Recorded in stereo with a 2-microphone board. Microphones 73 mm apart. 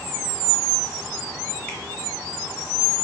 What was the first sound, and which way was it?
A finger snap, 15° left (ahead or behind).